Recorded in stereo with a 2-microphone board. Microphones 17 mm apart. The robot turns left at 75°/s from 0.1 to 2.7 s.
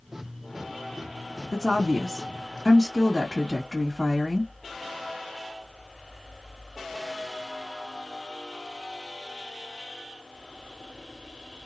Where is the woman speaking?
110° right, 1.6 m; by 4.5 s 160° left, 1.6 m.